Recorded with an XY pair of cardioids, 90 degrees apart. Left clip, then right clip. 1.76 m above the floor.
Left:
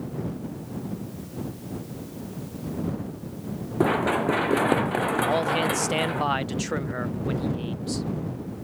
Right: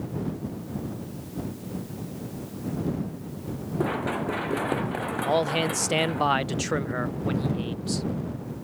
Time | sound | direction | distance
3.8 | running footsteps | 45° left | ?
5.2 | a man speaking | 15° right | ?